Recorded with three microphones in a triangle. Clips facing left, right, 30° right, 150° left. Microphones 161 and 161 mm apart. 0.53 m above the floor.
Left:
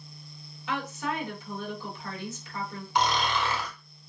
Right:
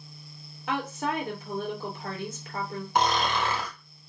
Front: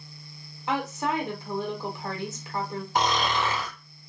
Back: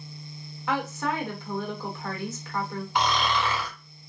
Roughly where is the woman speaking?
Right.